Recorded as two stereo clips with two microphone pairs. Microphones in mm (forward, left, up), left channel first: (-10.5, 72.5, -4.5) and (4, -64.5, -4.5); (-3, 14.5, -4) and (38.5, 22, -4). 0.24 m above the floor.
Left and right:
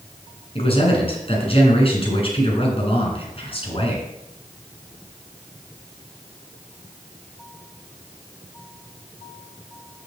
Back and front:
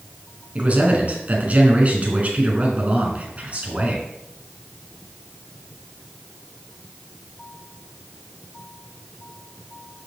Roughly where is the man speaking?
Ahead left.